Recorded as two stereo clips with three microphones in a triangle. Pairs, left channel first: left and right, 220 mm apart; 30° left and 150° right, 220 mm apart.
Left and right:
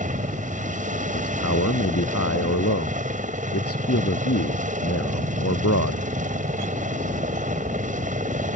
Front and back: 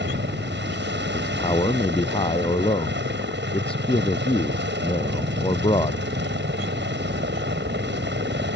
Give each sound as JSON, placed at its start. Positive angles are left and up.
{"t": 0.0, "sound": "a helicopter", "azimuth_deg": -135}
{"t": 1.1, "sound": "a man speaking", "azimuth_deg": 95}